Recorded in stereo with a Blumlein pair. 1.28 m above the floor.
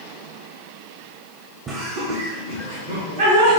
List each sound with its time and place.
1.7 s laughter: 25° right, 0.8 m; by 3.6 s 75° right, 1.8 m